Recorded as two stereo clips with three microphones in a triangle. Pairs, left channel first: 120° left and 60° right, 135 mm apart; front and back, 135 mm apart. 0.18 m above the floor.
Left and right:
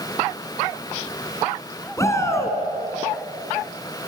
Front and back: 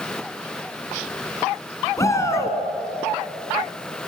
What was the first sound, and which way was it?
A shout, 60° left.